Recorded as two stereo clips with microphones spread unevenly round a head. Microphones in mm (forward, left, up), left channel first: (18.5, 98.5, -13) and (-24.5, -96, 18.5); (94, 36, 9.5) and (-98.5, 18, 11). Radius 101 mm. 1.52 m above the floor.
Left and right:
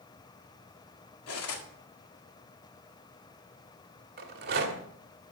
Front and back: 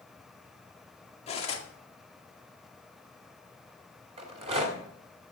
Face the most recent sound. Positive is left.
turn(degrees=-120)